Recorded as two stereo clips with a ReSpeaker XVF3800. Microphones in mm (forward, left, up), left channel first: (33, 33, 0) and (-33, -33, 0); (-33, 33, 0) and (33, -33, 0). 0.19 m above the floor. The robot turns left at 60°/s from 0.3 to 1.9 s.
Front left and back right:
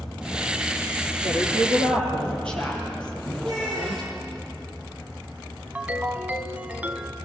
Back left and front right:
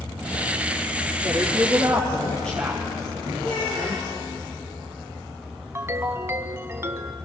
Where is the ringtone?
75° right, 0.9 m.